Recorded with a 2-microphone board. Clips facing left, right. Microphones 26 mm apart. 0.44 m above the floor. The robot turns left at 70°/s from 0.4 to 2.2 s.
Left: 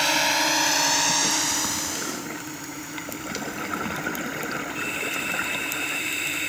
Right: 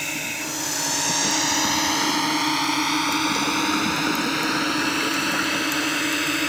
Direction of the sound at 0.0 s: 50° left (ahead or behind).